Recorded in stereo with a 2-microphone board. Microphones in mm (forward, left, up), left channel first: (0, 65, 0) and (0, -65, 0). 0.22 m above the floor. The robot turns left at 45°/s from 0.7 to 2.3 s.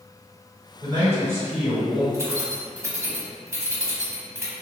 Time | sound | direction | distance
0.8 | a man speaking | 135° right | 1.9 m
2.1 | keys jangling | 25° right (ahead or behind) | 0.8 m